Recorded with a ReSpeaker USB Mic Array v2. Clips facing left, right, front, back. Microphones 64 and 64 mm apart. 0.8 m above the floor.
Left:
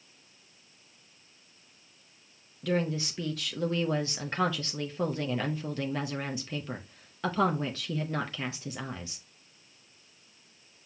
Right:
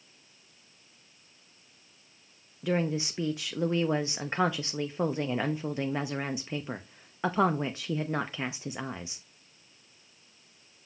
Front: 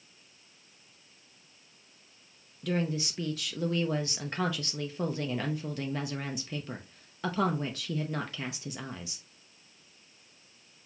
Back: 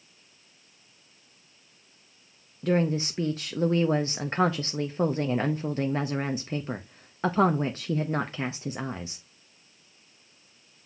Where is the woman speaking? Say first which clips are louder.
Right 1 dB, back 6 dB; 150° right, 0.5 m.